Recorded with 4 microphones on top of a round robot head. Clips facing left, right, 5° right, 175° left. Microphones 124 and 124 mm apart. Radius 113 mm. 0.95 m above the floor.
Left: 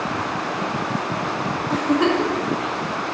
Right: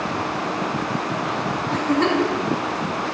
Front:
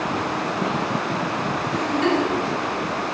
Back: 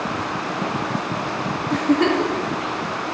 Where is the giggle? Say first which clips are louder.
Left 1 dB, back 4 dB; 170° left, 2.0 m.